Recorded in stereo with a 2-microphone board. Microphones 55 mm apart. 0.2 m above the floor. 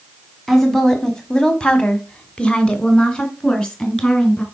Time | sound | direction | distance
0.5 | a woman speaking | 5° left (ahead or behind) | 1.7 m